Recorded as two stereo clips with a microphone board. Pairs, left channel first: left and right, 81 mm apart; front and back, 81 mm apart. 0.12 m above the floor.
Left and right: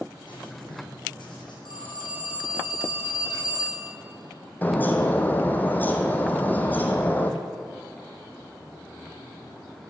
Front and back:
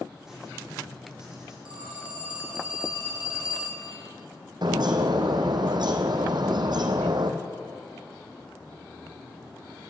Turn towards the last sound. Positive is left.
turn(degrees=155)